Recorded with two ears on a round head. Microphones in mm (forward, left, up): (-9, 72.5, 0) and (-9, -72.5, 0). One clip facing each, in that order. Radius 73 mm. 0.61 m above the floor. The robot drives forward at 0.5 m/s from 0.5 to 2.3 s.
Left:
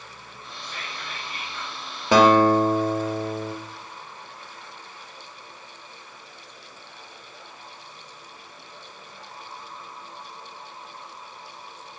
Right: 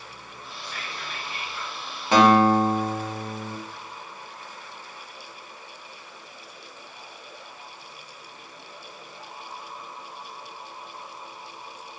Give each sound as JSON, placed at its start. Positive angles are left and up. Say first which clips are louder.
{"t": 0.6, "sound": "whispering", "louder": "even", "side_deg": 30, "distance_m": 1.1}
{"t": 2.1, "sound": "a guitar", "louder": "left 1 dB", "side_deg": 70, "distance_m": 0.6}